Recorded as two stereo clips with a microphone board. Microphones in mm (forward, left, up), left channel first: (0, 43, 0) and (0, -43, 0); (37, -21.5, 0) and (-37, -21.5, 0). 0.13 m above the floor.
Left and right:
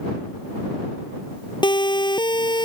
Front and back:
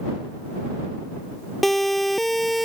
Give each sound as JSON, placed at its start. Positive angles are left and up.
{"t": 1.6, "sound": "a siren", "azimuth_deg": 85}